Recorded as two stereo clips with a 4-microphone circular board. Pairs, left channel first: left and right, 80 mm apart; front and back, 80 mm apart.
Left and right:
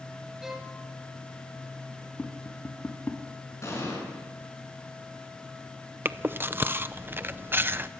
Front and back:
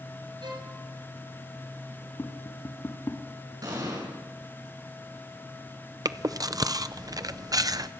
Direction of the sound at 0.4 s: 175° right.